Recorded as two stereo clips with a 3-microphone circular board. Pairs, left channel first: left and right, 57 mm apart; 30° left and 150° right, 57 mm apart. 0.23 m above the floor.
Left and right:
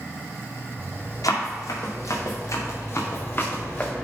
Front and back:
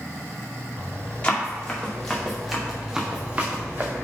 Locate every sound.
1.2 s running footsteps: 100° left, 3 m; by 3.9 s 160° left, 2.0 m